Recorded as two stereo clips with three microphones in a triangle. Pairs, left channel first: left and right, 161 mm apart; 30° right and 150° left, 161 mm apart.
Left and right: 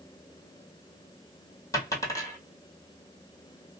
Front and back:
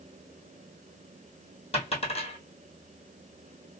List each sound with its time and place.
1.7 s a dropped coin: 20° left, 1.6 m